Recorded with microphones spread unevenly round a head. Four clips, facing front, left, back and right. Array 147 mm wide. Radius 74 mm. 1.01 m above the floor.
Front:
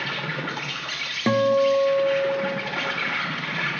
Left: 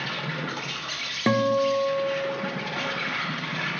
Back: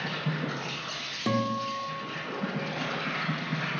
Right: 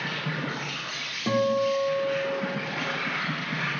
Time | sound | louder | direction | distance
0.0 | an insect | even, front 3 dB | 15° left | 3 m
1.3 | a guitar | left 2 dB, front 11 dB | 45° left | 0.7 m